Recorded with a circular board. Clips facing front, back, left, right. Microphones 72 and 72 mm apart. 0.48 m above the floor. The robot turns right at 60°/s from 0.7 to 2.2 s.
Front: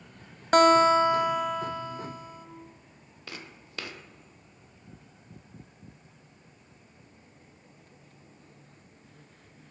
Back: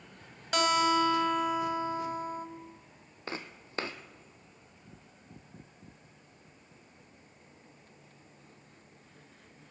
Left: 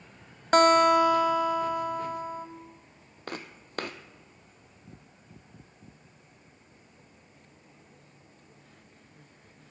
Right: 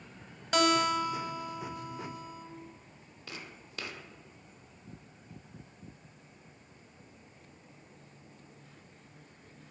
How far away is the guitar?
About 1.0 m.